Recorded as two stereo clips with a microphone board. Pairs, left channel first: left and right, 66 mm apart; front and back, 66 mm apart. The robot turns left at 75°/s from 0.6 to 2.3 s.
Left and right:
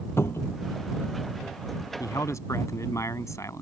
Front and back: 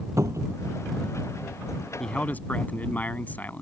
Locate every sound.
0.2 s a cupboard door: 140° left
2.0 s a man speaking: 85° left; by 3.6 s 60° left